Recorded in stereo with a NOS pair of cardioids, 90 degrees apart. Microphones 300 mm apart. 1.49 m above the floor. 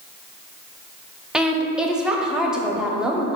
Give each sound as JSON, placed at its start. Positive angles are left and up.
{"t": 1.3, "sound": "a woman speaking", "azimuth_deg": -5, "distance_m": 0.6}